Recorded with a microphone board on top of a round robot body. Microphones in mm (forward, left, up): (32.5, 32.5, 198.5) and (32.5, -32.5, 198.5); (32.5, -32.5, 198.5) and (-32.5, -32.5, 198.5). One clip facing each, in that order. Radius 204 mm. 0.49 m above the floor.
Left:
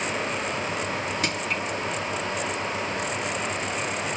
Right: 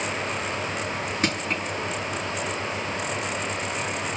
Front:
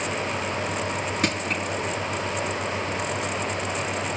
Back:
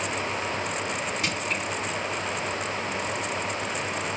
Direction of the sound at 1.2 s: 35° right.